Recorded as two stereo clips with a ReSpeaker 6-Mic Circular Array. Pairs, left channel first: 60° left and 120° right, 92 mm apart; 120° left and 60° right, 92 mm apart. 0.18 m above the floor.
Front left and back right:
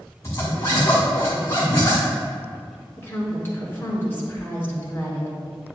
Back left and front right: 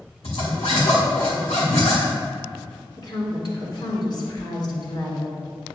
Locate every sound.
0.2 s a zipper: 115° left, 2.5 m
3.0 s a woman speaking: 120° left, 2.5 m